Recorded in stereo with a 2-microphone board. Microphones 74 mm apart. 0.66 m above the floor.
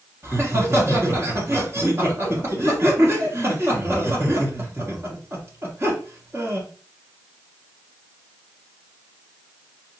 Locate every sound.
0.2 s laughter: 35° right (ahead or behind), 1.3 m